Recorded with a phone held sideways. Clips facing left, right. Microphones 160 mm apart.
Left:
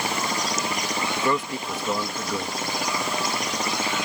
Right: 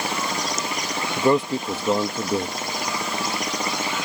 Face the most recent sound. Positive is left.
turn(degrees=-30)  # may be behind; listen again after turning